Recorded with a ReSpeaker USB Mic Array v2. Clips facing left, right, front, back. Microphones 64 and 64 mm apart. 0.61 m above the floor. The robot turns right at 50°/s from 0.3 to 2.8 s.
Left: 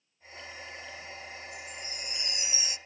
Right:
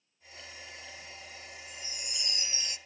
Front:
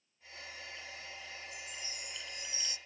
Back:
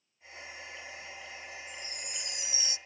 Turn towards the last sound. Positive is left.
turn(degrees=180)